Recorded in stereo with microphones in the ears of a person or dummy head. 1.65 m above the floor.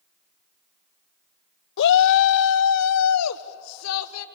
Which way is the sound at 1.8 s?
55° left (ahead or behind).